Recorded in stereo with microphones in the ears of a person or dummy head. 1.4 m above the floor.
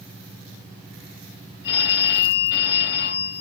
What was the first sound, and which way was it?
A phone ringing, 65° left (ahead or behind).